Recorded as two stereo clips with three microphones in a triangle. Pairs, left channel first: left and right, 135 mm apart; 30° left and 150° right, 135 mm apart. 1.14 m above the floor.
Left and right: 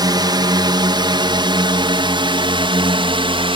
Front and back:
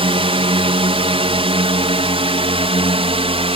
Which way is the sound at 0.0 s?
135° right.